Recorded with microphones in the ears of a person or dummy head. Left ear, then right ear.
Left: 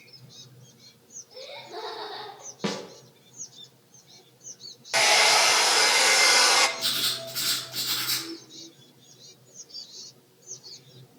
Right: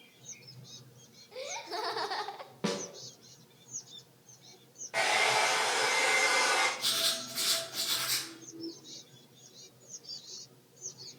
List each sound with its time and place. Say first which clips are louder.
1.3 s laughter: right 2 dB; 70° right (ahead or behind), 1.8 m; by 2.5 s 60° right (ahead or behind), 0.8 m
2.6 s a snare drum: left 3 dB; 5° left (ahead or behind), 1.0 m
4.9 s a hair dryer: left 8 dB; 75° left (ahead or behind), 0.9 m
6.8 s writing: left 4 dB; 25° left (ahead or behind), 3.5 m